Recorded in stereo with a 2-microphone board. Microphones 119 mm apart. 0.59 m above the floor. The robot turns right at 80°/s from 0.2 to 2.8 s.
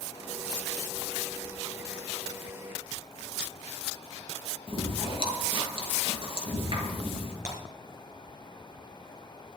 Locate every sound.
4.7 s chewing: 45° right (ahead or behind), 6 m
7.5 s breaking glass: 25° right (ahead or behind), 5 m